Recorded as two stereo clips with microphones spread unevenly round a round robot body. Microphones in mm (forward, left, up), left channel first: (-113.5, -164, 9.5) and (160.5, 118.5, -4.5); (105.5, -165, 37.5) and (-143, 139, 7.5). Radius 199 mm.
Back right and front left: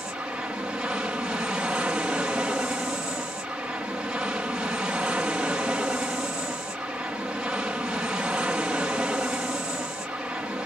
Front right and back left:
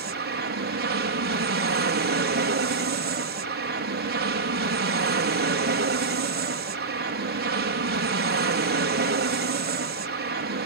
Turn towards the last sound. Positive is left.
turn(degrees=130)